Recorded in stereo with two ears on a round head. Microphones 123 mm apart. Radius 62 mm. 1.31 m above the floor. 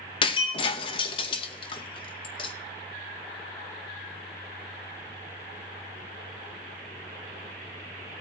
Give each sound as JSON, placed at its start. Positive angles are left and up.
{"t": 0.2, "sound": "breaking glass", "side_deg": 35, "distance_m": 0.8}